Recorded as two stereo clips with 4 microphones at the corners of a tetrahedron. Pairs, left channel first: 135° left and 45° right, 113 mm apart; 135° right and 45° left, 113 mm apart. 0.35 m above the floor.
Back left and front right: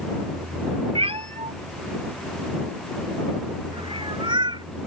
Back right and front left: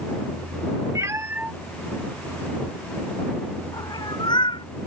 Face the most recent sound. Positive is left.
turn(degrees=-90)